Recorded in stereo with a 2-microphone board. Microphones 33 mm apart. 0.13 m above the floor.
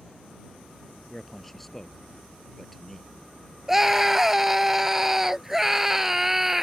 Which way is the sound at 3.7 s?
10° right (ahead or behind).